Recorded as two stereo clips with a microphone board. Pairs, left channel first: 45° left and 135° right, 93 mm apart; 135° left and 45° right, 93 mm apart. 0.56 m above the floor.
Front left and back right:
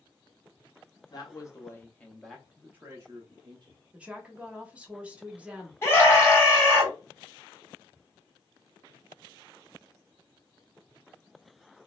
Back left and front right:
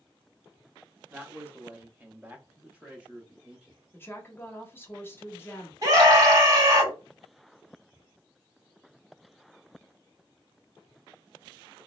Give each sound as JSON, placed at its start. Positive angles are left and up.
{"t": 1.1, "sound": "a man speaking", "azimuth_deg": 25, "distance_m": 0.9}
{"t": 3.9, "sound": "a woman speaking", "azimuth_deg": 165, "distance_m": 0.8}
{"t": 5.8, "sound": "a scream", "azimuth_deg": -10, "distance_m": 1.7}